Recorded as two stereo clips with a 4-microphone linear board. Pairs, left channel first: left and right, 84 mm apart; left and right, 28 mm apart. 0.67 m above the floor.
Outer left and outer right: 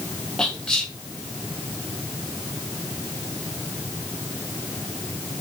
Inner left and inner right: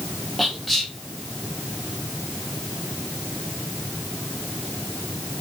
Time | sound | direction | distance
0.4 | whispering | 5° left (ahead or behind) | 0.5 m